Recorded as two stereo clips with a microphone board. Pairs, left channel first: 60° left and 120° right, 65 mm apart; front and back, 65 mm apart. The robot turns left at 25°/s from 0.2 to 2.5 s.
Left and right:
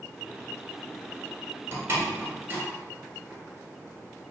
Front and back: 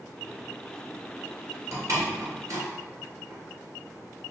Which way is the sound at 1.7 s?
155° right.